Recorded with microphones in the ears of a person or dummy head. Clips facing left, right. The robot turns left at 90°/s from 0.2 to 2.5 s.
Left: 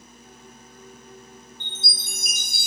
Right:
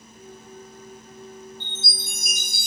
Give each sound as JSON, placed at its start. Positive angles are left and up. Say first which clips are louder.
{"t": 1.6, "sound": "a chime", "louder": "right 3 dB", "azimuth_deg": 130, "distance_m": 1.3}